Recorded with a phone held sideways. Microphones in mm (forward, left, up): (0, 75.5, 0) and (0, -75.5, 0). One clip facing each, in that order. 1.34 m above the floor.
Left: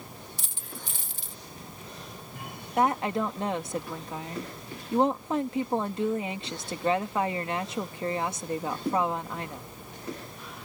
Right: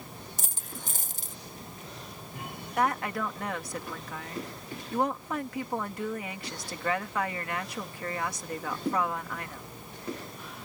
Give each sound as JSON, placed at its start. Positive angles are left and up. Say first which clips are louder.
{"t": 0.4, "sound": "a dropped coin", "louder": "right 1 dB", "side_deg": -45}
{"t": 2.8, "sound": "a woman speaking", "louder": "left 3 dB", "side_deg": 25}